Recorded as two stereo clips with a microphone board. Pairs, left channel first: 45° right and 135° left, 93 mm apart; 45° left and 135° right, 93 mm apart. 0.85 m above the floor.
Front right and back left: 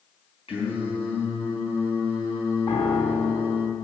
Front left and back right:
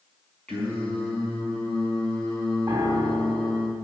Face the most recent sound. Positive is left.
turn(degrees=-60)